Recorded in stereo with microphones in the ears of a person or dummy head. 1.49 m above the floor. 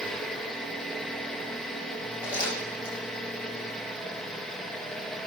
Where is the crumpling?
15° left (ahead or behind), 7.5 m.